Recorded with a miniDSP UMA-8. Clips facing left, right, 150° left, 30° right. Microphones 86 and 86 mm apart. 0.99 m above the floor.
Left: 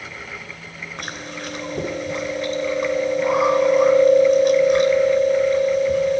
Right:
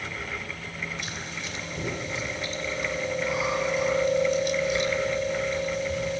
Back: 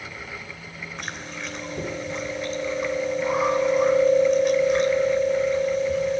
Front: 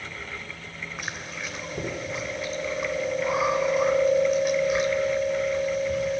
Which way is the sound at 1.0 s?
55° left.